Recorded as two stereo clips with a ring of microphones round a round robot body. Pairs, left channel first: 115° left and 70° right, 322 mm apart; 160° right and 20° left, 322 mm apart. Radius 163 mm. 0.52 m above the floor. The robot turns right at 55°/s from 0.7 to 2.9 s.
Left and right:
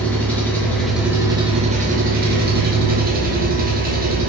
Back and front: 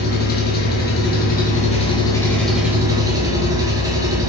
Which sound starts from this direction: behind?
An engine running, at 0.0 s.